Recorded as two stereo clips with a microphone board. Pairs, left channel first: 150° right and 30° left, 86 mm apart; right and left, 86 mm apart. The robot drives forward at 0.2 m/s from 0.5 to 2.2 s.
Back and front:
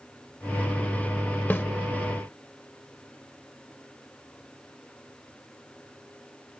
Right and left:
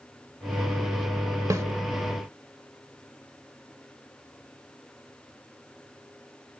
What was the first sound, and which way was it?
A snare drum, 140° left.